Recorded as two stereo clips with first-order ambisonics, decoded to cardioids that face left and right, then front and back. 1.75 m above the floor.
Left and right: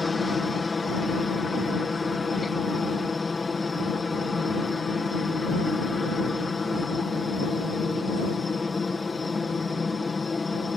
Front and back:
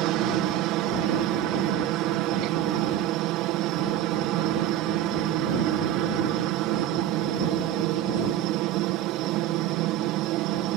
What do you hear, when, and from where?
0.0 s a helicopter: 165° left